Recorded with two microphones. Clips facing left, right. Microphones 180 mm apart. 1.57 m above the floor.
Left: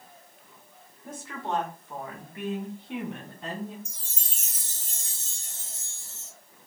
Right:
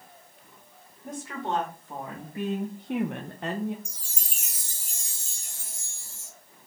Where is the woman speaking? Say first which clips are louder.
Right 2 dB; 5° right (ahead or behind), 1.5 m; by 3.8 s 65° right (ahead or behind), 0.6 m.